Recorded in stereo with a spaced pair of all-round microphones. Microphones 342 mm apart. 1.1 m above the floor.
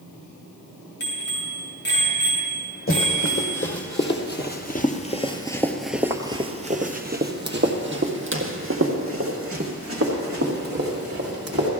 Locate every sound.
1.0 s a bicycle bell: 30° left (ahead or behind), 7 m
2.9 s running footsteps: 40° left (ahead or behind), 2.5 m; by 11.7 s 40° right (ahead or behind), 4.5 m